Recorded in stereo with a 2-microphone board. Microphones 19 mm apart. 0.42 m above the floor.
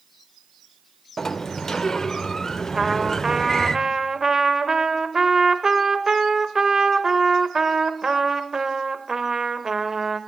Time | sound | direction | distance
1.2 | a sliding door | 25° left (ahead or behind) | 0.5 m
2.8 | a trumpet | 30° right (ahead or behind) | 0.7 m